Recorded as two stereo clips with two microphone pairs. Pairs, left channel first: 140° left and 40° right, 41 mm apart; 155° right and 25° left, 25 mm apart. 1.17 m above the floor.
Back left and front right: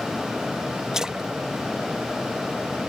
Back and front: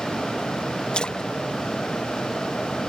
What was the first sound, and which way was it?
A splash, 110° right.